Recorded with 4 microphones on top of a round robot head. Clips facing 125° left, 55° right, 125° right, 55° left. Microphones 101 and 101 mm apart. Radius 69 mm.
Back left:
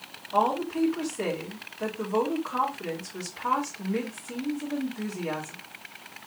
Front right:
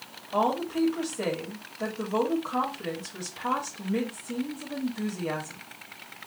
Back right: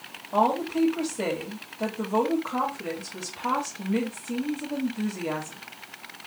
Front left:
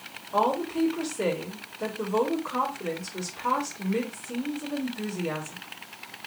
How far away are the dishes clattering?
I don't hear dishes clattering.